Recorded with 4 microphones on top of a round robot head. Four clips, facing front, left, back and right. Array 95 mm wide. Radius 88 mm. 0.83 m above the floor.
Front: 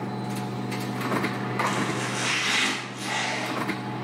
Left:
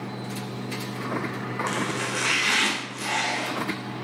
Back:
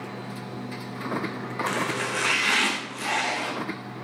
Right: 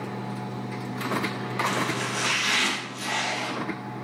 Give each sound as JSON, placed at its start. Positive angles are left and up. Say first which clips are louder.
{"t": 1.7, "sound": "chopping", "louder": "even, even", "azimuth_deg": 150, "distance_m": 3.5}